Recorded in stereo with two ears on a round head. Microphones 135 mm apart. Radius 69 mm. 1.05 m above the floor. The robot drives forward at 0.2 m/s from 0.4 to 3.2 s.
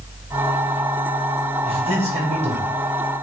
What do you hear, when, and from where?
1.6 s a man speaking: 40° right (ahead or behind), 1.0 m; by 2.6 s 45° right (ahead or behind), 0.9 m